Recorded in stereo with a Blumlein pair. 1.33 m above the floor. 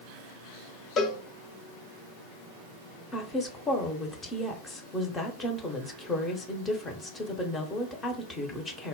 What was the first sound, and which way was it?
A cowbell, 25° left.